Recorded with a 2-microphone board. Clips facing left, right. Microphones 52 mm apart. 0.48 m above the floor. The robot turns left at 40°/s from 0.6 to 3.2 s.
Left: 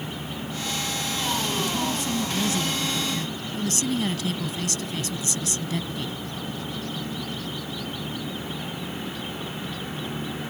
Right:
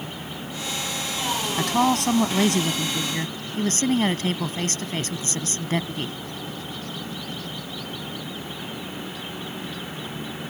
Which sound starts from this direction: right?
A woman speaking, at 1.6 s.